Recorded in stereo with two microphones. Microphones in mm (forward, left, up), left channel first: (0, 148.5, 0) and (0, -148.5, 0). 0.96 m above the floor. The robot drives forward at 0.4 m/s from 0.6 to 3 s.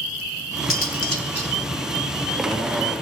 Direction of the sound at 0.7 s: 45° left (ahead or behind).